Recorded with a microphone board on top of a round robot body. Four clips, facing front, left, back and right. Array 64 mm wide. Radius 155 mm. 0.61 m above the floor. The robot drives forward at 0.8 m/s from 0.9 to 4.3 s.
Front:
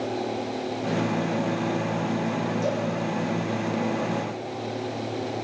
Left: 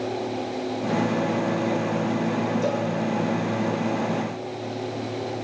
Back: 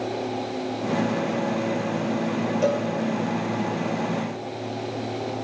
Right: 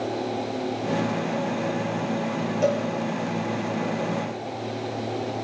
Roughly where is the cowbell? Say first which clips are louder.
Right 2 dB, back 7 dB; behind right.